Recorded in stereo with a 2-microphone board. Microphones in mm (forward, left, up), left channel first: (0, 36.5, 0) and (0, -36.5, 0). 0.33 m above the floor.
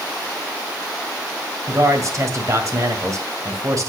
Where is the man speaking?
45° right (ahead or behind), 1.8 m.